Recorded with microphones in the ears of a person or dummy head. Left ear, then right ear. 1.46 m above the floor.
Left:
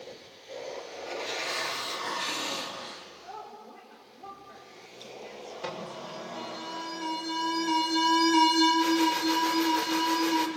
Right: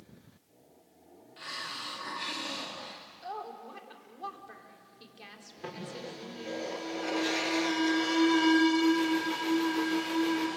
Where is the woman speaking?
45° right (ahead or behind), 4.5 m.